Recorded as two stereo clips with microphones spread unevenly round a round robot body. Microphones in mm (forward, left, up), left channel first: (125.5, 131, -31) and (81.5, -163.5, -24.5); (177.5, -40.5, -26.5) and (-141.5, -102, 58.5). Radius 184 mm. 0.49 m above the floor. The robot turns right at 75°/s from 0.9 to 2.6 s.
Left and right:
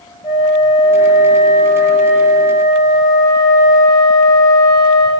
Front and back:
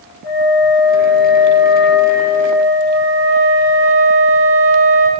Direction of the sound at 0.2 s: 10° left.